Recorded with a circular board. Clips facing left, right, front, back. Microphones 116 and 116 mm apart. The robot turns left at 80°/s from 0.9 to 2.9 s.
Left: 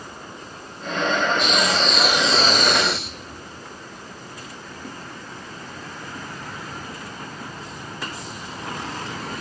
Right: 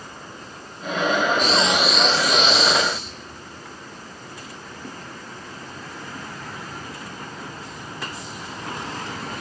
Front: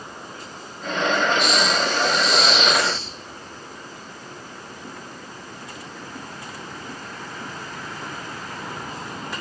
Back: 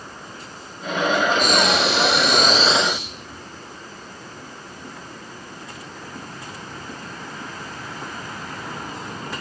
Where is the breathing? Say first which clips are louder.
Right 1 dB, back 2 dB; 135° right, 1.2 m; by 3.4 s 105° left, 1.2 m.